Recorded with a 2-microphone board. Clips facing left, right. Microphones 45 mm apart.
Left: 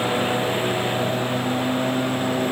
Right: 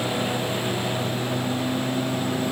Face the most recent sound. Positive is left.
turn(degrees=25)  # may be behind; listen again after turning